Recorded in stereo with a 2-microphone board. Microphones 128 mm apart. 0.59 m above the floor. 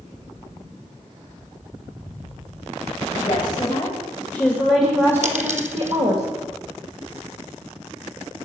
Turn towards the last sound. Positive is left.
turn(degrees=-65)  # may be behind; listen again after turning